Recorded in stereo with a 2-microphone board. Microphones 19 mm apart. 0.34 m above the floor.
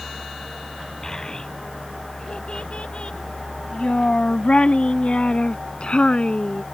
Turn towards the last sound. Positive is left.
turn(degrees=55)  # may be behind; listen again after turning